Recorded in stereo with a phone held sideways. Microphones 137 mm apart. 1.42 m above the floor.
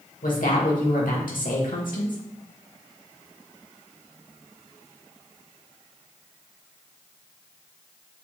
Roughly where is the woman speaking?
Left.